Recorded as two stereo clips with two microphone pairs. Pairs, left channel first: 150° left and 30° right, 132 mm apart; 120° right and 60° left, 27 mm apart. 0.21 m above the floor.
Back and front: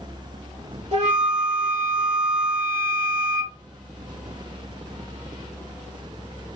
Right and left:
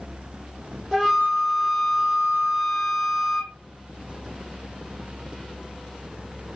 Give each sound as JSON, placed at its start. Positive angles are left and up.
{"t": 0.9, "sound": "a flute", "azimuth_deg": -10, "distance_m": 3.0}